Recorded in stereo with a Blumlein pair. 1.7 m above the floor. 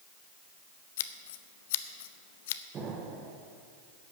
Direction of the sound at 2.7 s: 25° right.